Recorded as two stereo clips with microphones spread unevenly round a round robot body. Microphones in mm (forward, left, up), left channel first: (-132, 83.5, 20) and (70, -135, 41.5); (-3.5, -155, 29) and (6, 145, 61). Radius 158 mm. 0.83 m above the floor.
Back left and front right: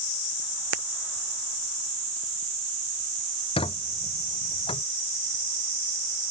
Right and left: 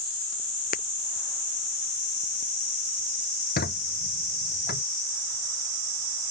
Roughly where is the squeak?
Behind right.